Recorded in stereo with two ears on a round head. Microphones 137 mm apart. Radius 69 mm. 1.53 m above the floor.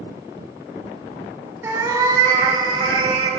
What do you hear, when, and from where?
1.6 s a cat meowing: 15° right (ahead or behind), 0.9 m; by 3.3 s 30° right (ahead or behind), 1.2 m